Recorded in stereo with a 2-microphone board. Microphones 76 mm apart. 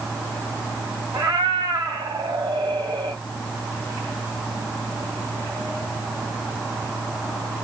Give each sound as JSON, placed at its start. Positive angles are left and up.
{"t": 1.1, "sound": "a cat meowing", "side_deg": -70, "distance_m": 2.0}